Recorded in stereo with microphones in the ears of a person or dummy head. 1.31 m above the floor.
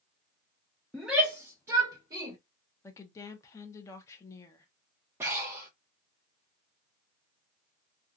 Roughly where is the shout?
Centre.